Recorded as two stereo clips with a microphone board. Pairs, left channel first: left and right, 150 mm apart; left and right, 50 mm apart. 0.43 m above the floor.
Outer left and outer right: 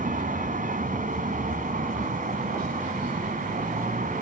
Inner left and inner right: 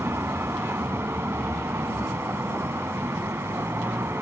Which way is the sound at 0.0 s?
65° right (ahead or behind).